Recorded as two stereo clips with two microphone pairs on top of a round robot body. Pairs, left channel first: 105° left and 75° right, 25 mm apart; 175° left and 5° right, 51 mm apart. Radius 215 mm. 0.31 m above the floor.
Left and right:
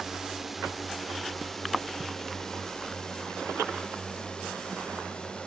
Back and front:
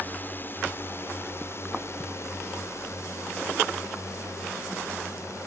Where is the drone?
145° right; by 5.5 s 155° left.